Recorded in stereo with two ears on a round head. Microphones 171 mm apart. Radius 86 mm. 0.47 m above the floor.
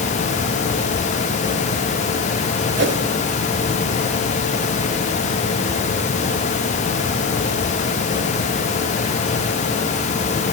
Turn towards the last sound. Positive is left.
turn(degrees=-65)  # may be behind; listen again after turning